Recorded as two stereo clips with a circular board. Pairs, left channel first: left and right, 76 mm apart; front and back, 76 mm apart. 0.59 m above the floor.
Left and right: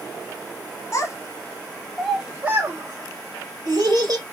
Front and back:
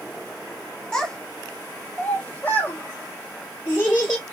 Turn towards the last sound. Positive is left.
turn(degrees=-70)